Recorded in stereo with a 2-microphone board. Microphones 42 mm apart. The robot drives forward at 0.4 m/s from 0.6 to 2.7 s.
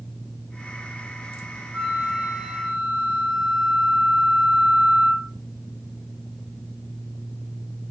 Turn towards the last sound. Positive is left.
turn(degrees=-15)  # may be behind; listen again after turning